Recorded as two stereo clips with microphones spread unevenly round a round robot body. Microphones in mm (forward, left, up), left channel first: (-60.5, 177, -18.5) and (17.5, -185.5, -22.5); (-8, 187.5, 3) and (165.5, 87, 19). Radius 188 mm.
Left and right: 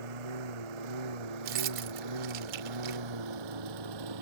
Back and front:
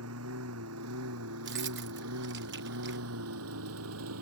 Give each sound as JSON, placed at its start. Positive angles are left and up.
{"t": 0.0, "sound": "a lawn mower", "azimuth_deg": -65}
{"t": 1.4, "sound": "keys jangling", "azimuth_deg": -55}